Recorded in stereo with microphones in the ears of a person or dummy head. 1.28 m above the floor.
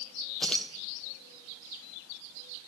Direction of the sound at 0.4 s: Centre (ahead or behind).